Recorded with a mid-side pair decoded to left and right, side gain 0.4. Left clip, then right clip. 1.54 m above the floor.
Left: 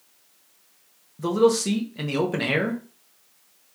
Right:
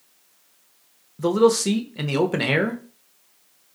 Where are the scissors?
I don't hear scissors.